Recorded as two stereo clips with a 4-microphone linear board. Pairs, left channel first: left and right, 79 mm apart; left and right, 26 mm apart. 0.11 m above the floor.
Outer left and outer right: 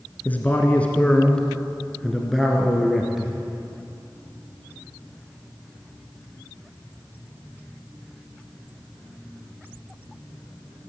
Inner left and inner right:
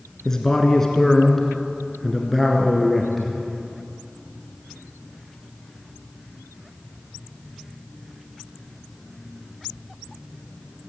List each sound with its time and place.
0.2 s a man speaking: 20° left (ahead or behind), 1.5 m; by 3.4 s 5° right (ahead or behind), 2.0 m